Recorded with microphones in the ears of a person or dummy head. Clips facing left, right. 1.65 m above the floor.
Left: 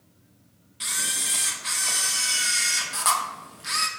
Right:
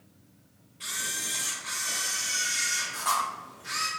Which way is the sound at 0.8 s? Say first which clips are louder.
Left 3 dB; 70° left (ahead or behind).